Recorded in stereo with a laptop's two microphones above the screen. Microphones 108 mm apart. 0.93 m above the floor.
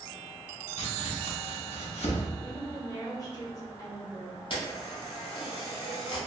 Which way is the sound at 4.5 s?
50° left (ahead or behind).